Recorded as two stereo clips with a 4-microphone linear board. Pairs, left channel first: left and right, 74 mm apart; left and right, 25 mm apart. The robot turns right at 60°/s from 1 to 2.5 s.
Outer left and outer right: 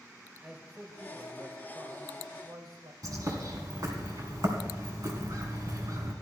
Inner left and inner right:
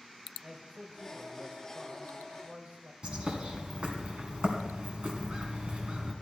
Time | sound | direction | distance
0.4 | a man speaking | 160° right | 2.5 m
3.0 | a bird | 50° right (ahead or behind) | 1.9 m